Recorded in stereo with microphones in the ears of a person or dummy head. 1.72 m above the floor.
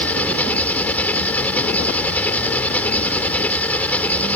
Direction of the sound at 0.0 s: 10° left (ahead or behind).